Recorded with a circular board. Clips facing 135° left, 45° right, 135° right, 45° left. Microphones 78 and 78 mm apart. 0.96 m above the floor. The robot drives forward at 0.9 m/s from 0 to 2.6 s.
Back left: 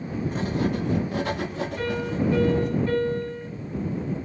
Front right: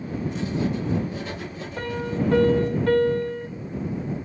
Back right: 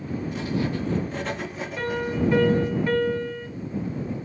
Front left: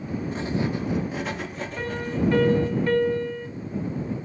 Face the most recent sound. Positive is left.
turn(degrees=-55)